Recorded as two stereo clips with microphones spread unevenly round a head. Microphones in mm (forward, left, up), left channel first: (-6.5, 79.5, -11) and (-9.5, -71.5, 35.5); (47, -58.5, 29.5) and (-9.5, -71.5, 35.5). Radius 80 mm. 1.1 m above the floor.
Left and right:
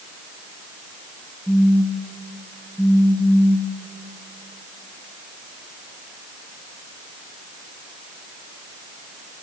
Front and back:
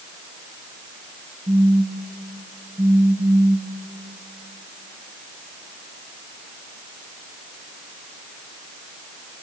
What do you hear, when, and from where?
1.5 s a phone buzzing: 170° right, 2.5 m